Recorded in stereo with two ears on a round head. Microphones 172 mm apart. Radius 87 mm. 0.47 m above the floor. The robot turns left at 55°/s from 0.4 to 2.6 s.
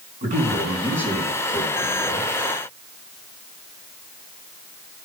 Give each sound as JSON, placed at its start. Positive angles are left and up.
{"t": 0.2, "sound": "a man speaking", "azimuth_deg": -135, "distance_m": 5.5}